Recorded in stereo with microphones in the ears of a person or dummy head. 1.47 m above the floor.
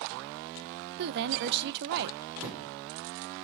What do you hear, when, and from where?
1.0 s a woman speaking: 60° right (ahead or behind), 0.9 m
2.4 s a thud: 15° right (ahead or behind), 4.5 m